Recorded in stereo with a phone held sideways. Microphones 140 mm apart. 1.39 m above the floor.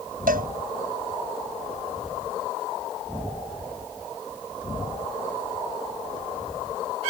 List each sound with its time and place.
0.3 s a cowbell: 85° right